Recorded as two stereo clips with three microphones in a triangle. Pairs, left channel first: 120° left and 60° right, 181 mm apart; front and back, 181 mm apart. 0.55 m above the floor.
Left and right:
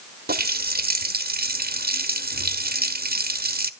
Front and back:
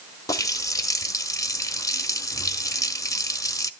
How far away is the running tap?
About 1.0 m.